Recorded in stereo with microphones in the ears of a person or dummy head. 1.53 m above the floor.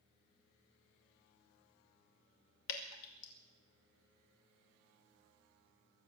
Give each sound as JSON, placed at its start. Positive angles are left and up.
{"t": 2.7, "sound": "dripping", "side_deg": 80, "distance_m": 2.0}